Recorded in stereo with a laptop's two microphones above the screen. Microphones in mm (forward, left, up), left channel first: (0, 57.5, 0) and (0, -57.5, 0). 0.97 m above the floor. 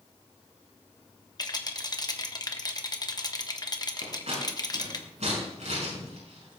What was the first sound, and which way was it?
A rattle, 35° left (ahead or behind).